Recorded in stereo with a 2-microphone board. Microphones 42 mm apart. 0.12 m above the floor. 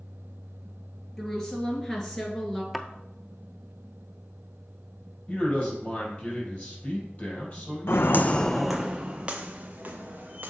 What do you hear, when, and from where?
1.2 s a woman speaking: 10° left (ahead or behind), 2.5 m
2.7 s a thud: centre (ahead or behind), 0.7 m
5.3 s a man speaking: 30° left (ahead or behind), 4 m
7.9 s footsteps: 75° left (ahead or behind), 0.6 m; by 10.5 s 40° right (ahead or behind), 2 m